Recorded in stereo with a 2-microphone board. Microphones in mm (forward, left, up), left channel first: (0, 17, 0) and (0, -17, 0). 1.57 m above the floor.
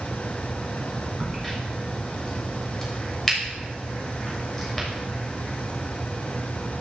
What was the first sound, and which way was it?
A crack, 10° left (ahead or behind).